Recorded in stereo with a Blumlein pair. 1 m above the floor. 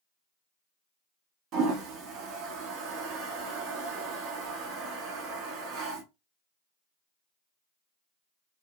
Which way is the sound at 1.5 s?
35° right.